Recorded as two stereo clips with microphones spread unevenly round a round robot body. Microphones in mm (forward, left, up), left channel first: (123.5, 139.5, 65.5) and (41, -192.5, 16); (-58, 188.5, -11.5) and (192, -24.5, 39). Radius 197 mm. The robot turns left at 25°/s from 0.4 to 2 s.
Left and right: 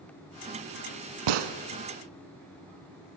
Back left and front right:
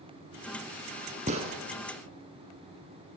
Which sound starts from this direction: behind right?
A gunshot, at 1.3 s.